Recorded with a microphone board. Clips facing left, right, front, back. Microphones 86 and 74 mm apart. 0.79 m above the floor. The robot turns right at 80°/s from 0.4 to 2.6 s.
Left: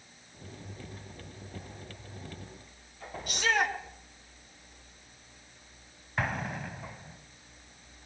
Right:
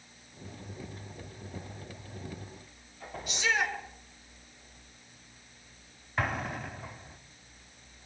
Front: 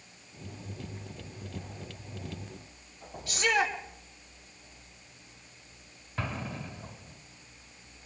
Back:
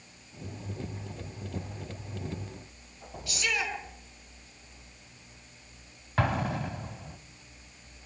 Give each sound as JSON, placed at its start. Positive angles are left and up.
{"t": 3.3, "sound": "a shout", "azimuth_deg": 55, "distance_m": 7.0}
{"t": 6.2, "sound": "an explosion", "azimuth_deg": 180, "distance_m": 1.4}